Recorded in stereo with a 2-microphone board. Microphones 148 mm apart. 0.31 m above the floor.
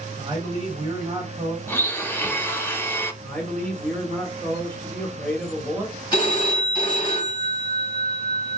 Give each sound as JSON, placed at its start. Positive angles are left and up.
{"t": 0.2, "sound": "a man speaking", "side_deg": -20, "distance_m": 2.0}
{"t": 1.7, "sound": "a blender", "side_deg": 15, "distance_m": 0.9}
{"t": 3.2, "sound": "a man speaking", "side_deg": 10, "distance_m": 1.3}
{"t": 6.1, "sound": "a phone ringing", "side_deg": 30, "distance_m": 1.5}